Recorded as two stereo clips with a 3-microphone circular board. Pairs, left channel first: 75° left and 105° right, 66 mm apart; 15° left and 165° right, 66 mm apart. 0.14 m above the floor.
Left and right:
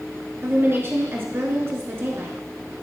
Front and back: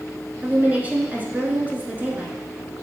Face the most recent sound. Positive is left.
turn(degrees=-115)